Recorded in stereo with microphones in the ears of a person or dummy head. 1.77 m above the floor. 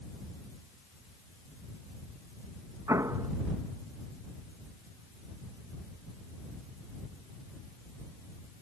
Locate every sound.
2.9 s an explosion: 20° right (ahead or behind)